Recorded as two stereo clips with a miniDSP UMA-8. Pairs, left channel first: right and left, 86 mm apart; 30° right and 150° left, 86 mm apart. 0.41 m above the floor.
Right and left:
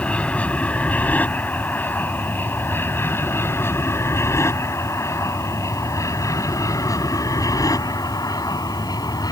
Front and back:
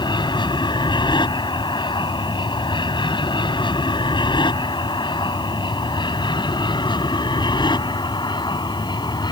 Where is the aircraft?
15° right; by 9.3 s 55° right.